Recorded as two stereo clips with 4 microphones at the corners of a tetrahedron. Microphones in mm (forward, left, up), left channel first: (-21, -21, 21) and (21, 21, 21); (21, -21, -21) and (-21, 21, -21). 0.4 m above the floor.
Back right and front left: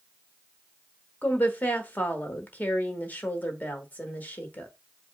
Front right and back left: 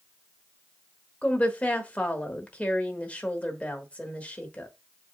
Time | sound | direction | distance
1.2 | a woman speaking | 95° right | 1.1 m